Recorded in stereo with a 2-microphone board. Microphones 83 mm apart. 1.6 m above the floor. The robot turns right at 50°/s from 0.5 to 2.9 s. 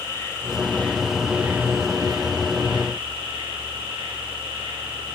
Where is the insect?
150° left, 7.5 m; by 5.2 s 90° right, 7.5 m.